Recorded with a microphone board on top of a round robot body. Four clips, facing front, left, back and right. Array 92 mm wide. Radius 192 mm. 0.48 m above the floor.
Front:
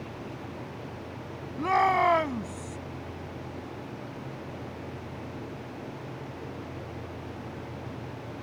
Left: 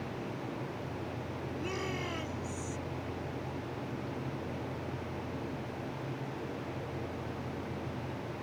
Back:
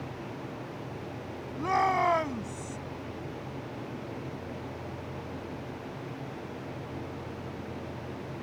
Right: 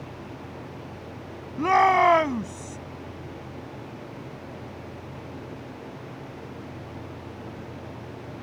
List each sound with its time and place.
1.6 s a shout: 80° right